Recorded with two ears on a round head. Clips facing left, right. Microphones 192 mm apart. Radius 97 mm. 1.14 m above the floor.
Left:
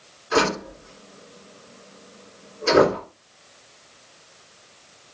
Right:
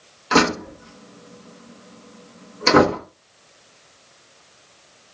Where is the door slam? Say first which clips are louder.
Right 3 dB; 80° right, 1.0 m.